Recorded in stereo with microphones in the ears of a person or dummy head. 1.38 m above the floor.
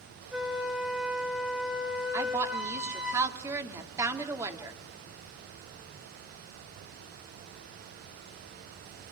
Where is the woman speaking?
15° right (ahead or behind), 2.5 m.